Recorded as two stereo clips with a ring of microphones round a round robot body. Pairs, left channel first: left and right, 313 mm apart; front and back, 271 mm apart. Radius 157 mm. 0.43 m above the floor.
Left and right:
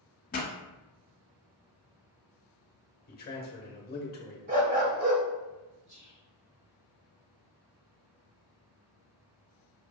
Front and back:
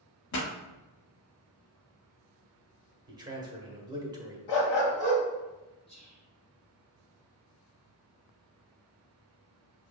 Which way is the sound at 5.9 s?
50° right.